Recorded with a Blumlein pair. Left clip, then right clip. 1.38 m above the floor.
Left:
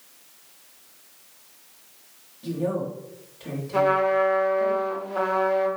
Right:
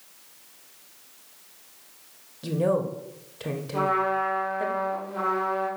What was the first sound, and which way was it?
A woman speaking, 65° right.